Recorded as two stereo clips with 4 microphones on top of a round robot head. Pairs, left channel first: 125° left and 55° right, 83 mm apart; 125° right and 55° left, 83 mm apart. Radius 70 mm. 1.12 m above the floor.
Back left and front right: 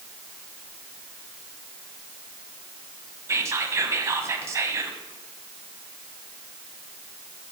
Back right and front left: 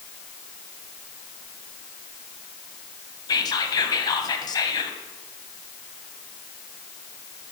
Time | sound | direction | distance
3.3 | whispering | 105° right | 1.1 m